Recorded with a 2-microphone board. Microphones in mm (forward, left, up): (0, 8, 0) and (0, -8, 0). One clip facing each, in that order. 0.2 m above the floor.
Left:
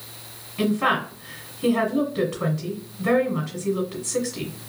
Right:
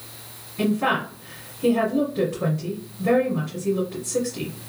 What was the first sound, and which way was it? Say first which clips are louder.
A woman speaking: even; 45° left (ahead or behind).